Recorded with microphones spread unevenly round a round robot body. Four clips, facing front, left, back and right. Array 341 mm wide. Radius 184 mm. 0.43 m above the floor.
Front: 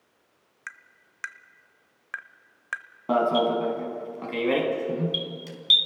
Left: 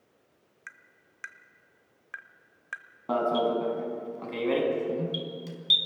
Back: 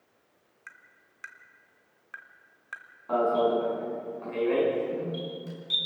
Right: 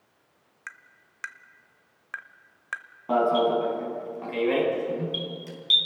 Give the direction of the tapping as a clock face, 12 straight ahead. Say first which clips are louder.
Right 5 dB, front 7 dB; 1 o'clock.